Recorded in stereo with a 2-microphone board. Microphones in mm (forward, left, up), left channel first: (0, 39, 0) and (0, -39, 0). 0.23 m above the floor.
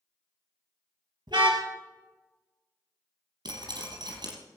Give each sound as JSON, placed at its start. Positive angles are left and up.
{"t": 1.3, "sound": "a car horn", "side_deg": -75, "distance_m": 2.0}
{"t": 3.5, "sound": "dripping", "side_deg": -65, "distance_m": 3.5}